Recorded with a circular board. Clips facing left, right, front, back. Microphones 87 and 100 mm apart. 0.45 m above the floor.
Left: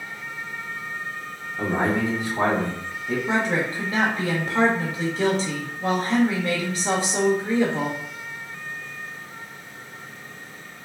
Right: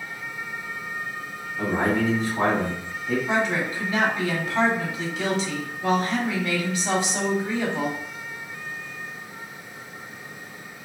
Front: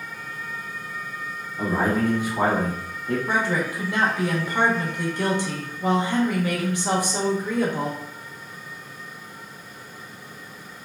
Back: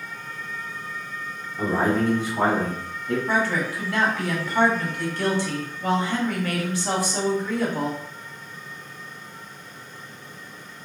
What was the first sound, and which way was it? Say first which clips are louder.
A man speaking: even, back 1 dB; 105° left.